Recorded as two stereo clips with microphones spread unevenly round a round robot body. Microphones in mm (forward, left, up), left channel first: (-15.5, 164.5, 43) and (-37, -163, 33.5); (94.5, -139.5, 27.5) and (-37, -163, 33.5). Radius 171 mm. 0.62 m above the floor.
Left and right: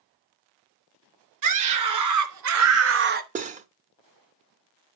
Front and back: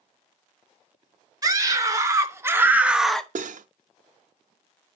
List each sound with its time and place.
1.4 s a scream: 110° right, 3 m; by 3.2 s 60° right, 1.2 m
3.4 s cutlery clinking: 160° right, 0.8 m